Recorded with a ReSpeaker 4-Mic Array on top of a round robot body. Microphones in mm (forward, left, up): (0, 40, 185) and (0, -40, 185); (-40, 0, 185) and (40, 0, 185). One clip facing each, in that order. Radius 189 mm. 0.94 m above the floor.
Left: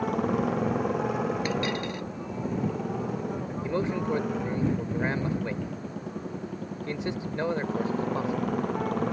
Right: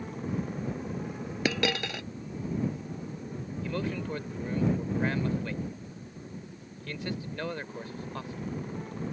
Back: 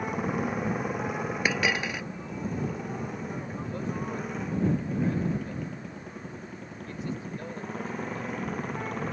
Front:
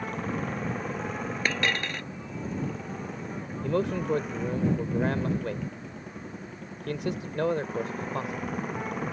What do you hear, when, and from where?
0.0 s a motorcycle: 100° left; by 9.1 s 85° left
1.4 s a dropped coin: 100° right
3.6 s a man speaking: 20° left